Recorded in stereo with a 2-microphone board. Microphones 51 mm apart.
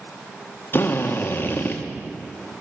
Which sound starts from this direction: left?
A drill, at 0.7 s.